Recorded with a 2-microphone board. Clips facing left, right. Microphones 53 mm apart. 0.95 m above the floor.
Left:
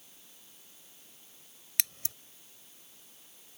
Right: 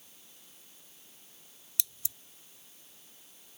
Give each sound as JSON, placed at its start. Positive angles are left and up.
{"t": 1.8, "sound": "scissors", "side_deg": 60}